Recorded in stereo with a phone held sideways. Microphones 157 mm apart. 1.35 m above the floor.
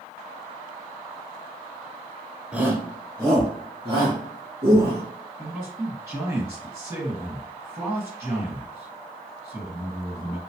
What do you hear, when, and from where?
2.5 s a shout: 10° right (ahead or behind), 0.6 m; by 5.0 s 35° right (ahead or behind), 2.5 m
5.4 s a man speaking: 15° right (ahead or behind), 1.5 m